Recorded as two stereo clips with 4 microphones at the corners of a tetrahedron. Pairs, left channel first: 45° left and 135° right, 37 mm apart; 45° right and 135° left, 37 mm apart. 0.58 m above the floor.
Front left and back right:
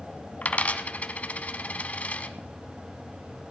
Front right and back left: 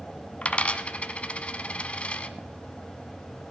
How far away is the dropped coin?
About 0.8 m.